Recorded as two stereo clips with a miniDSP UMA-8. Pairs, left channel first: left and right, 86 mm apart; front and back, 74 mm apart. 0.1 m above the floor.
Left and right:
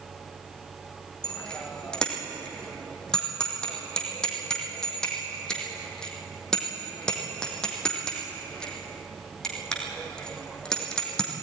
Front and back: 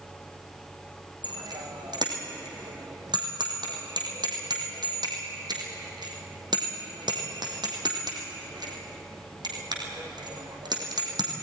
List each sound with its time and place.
1.2 s a bicycle bell: 170° left, 3.5 m